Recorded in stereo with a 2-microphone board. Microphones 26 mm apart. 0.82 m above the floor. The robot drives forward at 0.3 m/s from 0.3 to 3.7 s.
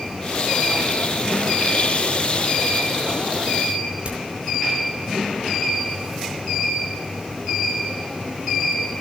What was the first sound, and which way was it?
A crack, 50° right (ahead or behind).